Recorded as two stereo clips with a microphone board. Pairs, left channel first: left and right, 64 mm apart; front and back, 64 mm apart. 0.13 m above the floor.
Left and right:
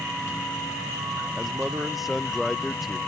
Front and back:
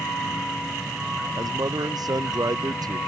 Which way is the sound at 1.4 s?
Straight behind.